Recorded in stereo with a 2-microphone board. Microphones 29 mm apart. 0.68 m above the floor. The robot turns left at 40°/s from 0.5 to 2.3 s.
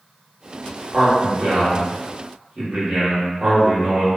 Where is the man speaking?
50° right, 0.9 m; by 4.1 s 105° right, 0.9 m.